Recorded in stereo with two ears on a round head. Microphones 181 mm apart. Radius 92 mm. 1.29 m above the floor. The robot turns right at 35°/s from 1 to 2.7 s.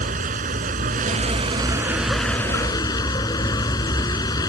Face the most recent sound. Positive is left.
turn(degrees=20)